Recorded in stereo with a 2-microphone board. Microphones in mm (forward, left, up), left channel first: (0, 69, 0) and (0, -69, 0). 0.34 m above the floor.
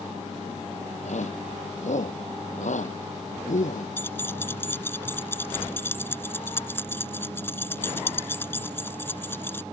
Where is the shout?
65° left (ahead or behind); by 3.9 s 75° left (ahead or behind).